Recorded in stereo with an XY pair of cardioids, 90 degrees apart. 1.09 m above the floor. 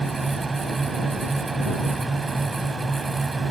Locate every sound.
0.0 s a fan: 25° right